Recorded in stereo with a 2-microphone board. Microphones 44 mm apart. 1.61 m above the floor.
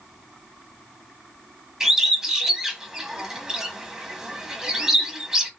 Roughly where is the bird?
Centre.